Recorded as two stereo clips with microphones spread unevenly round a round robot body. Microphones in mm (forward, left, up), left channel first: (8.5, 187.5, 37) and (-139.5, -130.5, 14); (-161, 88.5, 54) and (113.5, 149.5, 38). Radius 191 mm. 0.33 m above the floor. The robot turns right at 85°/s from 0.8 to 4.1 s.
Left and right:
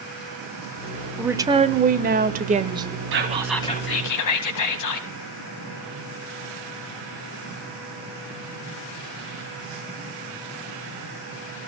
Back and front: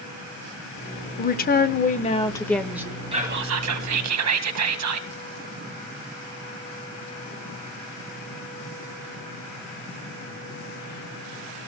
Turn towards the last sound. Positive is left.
turn(degrees=25)